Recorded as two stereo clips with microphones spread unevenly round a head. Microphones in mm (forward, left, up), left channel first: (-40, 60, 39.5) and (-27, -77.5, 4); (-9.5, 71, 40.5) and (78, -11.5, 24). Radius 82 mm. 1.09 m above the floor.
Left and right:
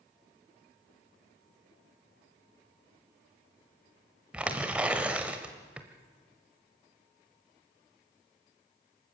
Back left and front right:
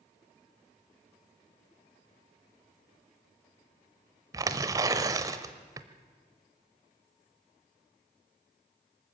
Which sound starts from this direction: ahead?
Tearing paper, at 4.3 s.